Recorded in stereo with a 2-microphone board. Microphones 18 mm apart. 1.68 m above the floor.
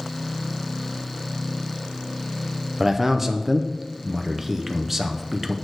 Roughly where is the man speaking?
Centre.